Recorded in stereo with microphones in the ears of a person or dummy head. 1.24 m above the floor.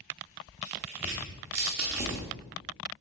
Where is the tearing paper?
10° right (ahead or behind), 0.7 m.